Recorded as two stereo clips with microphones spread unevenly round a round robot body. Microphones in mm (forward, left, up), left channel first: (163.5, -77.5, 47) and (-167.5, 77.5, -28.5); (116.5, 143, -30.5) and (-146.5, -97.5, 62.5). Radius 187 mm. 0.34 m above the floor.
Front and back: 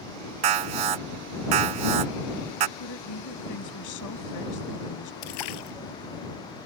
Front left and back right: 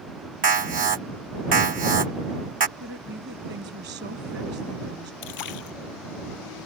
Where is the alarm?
150° left.